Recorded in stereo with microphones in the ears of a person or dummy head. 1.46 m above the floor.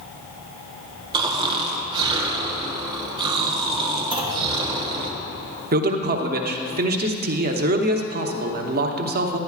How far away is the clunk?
About 1.1 m.